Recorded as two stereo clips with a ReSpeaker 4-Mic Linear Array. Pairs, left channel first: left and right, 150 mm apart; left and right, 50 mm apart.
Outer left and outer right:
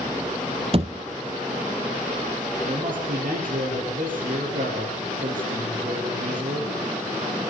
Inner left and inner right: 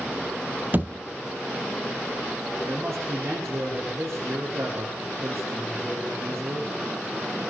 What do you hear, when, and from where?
0.7 s a thud: 40° right (ahead or behind), 0.9 m
2.6 s a man speaking: 65° right (ahead or behind), 6.5 m